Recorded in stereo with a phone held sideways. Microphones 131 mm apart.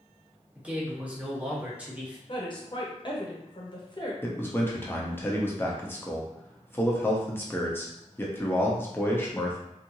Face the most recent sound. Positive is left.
turn(degrees=15)  # may be behind; listen again after turning